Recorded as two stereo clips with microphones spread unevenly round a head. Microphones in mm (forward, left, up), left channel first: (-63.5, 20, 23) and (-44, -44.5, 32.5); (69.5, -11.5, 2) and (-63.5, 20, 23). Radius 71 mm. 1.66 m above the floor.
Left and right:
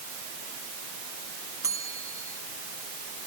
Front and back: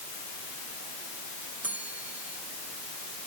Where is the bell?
115° right.